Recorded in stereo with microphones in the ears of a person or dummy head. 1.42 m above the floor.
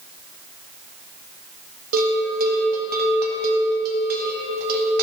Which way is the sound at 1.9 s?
65° right (ahead or behind).